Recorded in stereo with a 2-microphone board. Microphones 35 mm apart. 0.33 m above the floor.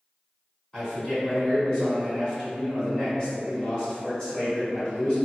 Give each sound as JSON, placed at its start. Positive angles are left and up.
{"t": 0.7, "sound": "a man speaking", "side_deg": 25, "distance_m": 1.4}